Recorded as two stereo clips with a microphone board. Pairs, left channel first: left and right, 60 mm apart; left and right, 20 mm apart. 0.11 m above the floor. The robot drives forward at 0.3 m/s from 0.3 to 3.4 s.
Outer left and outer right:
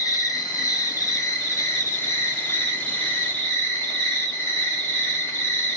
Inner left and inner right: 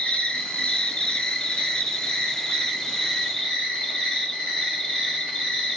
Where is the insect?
80° left, 0.7 m; by 5.8 s 35° left (ahead or behind), 1.2 m.